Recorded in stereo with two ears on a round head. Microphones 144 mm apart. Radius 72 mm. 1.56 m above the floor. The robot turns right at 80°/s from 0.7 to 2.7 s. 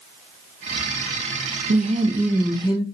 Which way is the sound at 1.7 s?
55° right.